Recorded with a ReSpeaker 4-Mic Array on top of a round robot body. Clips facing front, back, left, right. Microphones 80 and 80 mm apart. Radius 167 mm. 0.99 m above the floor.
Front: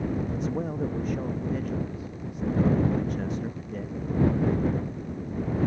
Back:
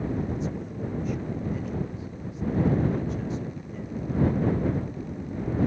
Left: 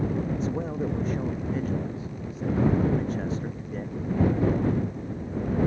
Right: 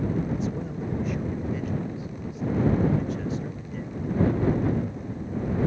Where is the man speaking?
35° left.